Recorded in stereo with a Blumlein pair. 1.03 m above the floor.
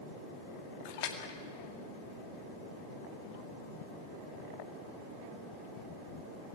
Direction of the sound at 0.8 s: 50° left.